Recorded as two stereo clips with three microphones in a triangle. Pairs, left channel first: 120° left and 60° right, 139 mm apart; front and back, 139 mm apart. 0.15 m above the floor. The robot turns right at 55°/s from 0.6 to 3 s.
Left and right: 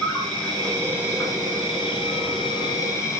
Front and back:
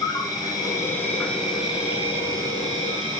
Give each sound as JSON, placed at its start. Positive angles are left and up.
{"t": 0.0, "sound": "an insect", "azimuth_deg": 35, "distance_m": 1.2}